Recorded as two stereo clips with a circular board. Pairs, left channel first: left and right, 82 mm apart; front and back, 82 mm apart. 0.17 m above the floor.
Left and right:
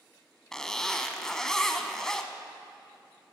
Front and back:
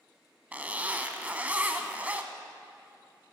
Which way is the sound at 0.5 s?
160° left.